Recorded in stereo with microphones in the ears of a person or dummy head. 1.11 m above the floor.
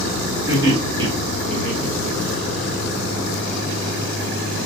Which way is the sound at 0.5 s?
15° right (ahead or behind).